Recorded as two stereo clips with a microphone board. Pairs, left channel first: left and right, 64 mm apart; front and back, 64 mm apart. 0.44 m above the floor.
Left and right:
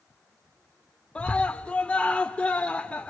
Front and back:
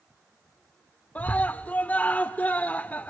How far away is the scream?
About 0.8 m.